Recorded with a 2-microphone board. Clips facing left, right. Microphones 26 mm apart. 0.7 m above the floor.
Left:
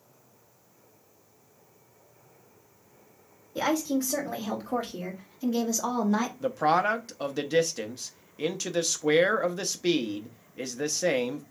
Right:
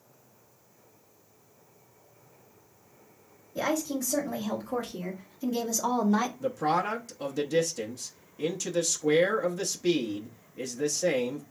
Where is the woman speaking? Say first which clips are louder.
Left 3 dB; 50° left (ahead or behind), 2.5 m; by 6.3 s centre (ahead or behind), 1.0 m.